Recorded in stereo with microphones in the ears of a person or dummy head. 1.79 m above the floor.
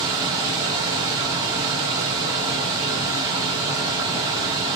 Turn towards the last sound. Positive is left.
turn(degrees=-25)  # may be behind; listen again after turning